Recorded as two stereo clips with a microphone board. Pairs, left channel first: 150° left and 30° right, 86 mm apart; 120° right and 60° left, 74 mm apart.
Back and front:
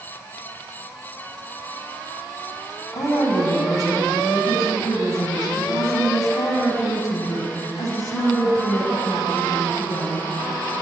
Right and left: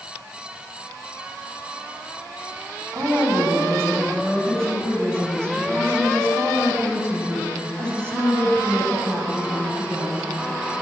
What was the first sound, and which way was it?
A woman speaking, 120° left.